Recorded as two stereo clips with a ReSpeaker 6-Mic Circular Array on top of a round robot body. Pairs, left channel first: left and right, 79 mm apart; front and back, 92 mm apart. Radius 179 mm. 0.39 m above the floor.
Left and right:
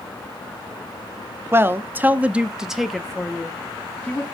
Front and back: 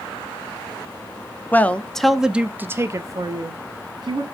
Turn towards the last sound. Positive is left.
turn(degrees=160)